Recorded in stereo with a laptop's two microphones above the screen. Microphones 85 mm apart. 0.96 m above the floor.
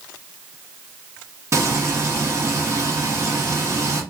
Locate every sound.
1.5 s frying: 35° right (ahead or behind), 1.0 m